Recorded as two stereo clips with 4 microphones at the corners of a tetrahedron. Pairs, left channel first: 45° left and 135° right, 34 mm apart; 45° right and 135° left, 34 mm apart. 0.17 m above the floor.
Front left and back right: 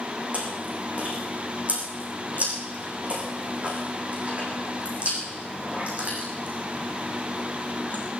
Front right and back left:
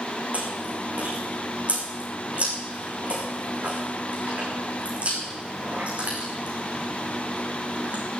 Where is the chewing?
Straight behind, 5 m.